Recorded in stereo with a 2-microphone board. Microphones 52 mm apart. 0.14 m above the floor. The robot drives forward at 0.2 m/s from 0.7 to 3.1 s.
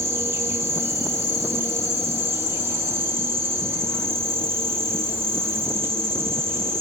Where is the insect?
60° right (ahead or behind), 1.8 m; by 6.8 s 50° right (ahead or behind), 2.0 m.